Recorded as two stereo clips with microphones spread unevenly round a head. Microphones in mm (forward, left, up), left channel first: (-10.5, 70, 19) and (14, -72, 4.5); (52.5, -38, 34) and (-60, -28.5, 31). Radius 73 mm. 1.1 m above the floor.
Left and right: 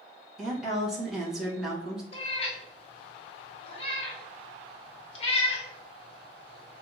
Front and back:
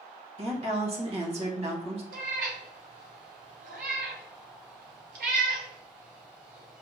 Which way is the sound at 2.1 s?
150° left.